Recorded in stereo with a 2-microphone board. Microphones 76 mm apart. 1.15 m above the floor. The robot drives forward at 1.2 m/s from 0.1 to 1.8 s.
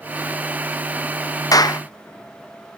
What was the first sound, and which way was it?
A clap, 55° left (ahead or behind).